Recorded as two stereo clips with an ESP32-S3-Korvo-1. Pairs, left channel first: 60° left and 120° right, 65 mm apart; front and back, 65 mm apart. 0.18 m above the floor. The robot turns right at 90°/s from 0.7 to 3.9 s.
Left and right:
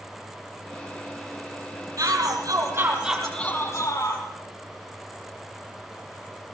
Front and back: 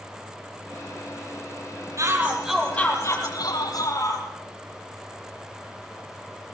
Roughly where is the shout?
Behind right.